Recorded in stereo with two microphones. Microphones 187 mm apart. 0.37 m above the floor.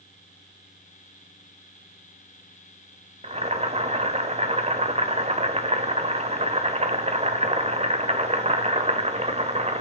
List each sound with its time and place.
3.2 s boiling: 35° right (ahead or behind), 1.3 m